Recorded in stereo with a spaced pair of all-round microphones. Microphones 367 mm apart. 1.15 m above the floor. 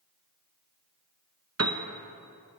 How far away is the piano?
About 0.7 m.